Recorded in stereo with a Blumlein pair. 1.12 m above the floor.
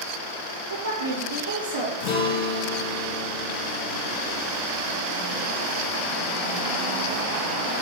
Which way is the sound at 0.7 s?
65° right.